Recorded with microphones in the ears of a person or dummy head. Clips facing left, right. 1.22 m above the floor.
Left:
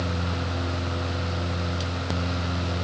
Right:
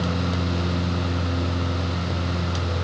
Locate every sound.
Only background noise.